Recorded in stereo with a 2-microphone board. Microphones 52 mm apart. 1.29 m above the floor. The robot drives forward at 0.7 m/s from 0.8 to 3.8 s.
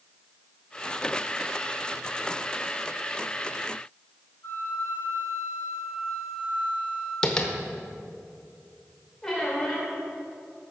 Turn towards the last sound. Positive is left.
turn(degrees=10)  # may be behind; listen again after turning